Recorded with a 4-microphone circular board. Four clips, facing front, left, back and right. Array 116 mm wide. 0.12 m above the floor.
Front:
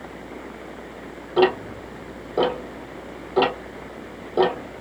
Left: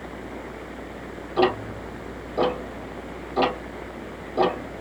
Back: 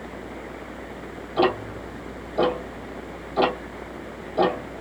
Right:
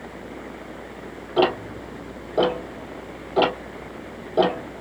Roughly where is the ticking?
Ahead right.